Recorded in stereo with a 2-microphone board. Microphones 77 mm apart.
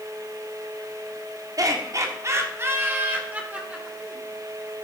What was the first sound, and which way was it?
Laughter, 50° right (ahead or behind).